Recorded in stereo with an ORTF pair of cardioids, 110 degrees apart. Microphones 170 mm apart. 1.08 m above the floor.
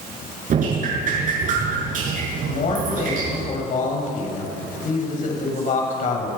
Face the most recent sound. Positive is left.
turn(degrees=50)